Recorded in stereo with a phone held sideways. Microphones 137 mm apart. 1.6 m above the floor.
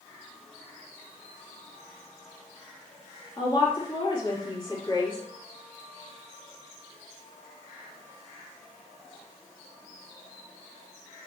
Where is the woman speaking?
35° left (ahead or behind), 4 m.